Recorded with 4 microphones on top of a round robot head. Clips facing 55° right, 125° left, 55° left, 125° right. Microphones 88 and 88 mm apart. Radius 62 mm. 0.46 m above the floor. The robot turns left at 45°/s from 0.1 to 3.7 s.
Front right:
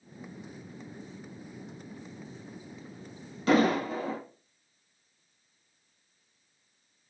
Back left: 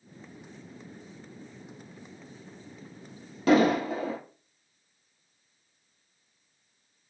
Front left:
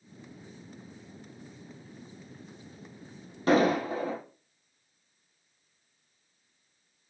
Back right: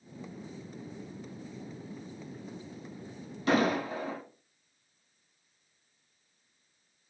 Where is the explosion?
115° left, 2 m; by 4.2 s 105° left, 2 m.